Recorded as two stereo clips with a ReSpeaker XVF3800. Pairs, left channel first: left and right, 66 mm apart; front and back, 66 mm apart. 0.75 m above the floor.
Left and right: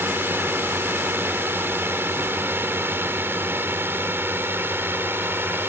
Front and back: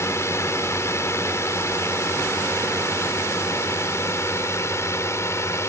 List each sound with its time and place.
0.0 s a drone: 35° right